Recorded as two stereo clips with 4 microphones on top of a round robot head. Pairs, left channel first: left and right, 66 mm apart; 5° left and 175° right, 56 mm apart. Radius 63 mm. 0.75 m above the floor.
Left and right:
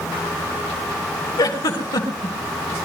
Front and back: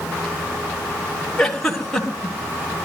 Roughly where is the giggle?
Left.